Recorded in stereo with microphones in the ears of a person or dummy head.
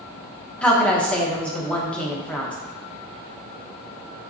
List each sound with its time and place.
0.6 s a woman speaking: 10° left (ahead or behind), 0.7 m